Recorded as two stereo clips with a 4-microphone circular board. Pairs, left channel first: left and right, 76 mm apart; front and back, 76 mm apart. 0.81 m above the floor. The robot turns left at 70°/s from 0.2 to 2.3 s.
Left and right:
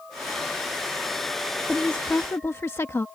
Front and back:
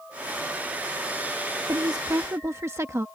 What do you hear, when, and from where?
1.7 s a woman speaking: straight behind; by 3.0 s 135° left